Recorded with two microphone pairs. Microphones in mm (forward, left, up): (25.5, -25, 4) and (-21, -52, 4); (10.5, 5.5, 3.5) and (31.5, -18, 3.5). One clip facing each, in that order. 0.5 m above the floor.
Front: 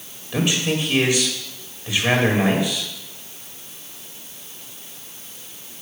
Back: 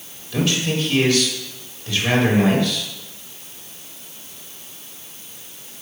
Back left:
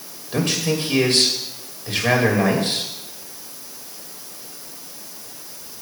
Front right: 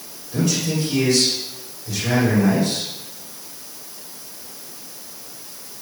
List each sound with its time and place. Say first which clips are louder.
0.3 s a man speaking: even, even; 100° left, 2.5 m